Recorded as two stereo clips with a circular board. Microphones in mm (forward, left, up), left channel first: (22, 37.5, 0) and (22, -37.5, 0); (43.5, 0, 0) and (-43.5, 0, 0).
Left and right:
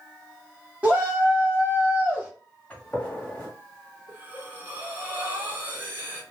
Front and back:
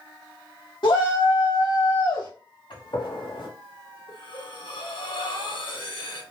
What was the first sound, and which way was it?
A shout, 20° right.